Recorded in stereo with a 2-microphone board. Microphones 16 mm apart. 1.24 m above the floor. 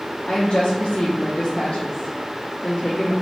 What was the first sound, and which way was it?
A woman speaking, 60° left (ahead or behind).